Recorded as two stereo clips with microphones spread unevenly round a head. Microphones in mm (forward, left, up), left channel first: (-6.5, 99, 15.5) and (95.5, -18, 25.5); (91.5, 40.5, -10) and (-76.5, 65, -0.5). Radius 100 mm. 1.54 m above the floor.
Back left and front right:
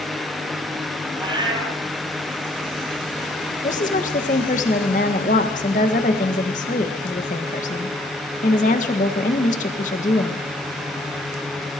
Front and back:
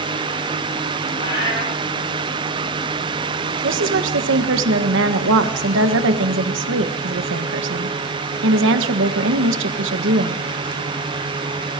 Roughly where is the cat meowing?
Ahead.